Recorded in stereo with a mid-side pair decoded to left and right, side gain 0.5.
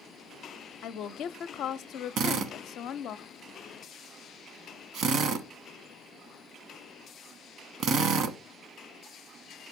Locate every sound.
0.8 s a woman speaking: 65° left, 0.5 m
2.2 s a drill: 70° right, 0.9 m